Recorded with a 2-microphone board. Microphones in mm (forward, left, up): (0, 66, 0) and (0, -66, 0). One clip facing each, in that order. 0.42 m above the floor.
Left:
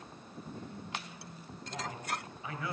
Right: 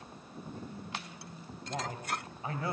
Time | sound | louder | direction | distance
1.7 | a man speaking | right 2 dB | 40° right (ahead or behind) | 2 m